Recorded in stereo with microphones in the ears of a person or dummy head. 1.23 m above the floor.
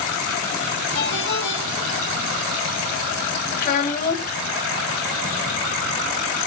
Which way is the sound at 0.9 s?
80° left.